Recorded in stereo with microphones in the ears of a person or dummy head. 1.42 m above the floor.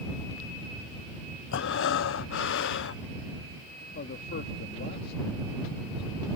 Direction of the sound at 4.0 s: 50° left (ahead or behind).